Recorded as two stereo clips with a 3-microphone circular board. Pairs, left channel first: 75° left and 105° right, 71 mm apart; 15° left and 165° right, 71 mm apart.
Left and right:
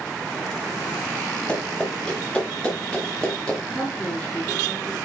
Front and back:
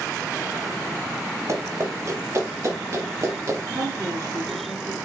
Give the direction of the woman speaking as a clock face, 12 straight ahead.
7 o'clock.